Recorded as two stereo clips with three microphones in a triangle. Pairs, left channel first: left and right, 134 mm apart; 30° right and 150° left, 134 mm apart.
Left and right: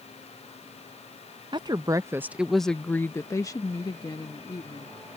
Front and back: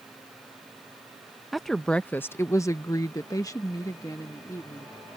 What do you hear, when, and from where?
1.5 s a woman speaking: 120° right; by 5.0 s 35° left